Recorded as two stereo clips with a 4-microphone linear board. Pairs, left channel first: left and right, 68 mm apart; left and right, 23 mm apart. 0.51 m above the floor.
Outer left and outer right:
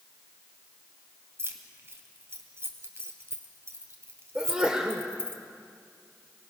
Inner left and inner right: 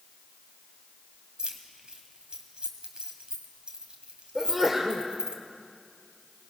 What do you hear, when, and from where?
1.4 s keys jangling: 40° right (ahead or behind), 2 m
4.3 s a sneeze: 15° right (ahead or behind), 1.5 m